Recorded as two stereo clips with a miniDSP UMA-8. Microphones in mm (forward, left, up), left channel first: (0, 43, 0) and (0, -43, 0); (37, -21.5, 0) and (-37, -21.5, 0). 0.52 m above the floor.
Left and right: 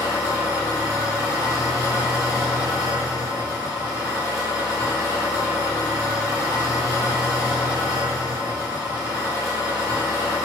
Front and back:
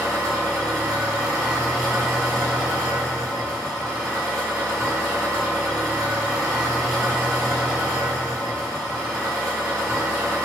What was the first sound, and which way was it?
An engine running, 135° right.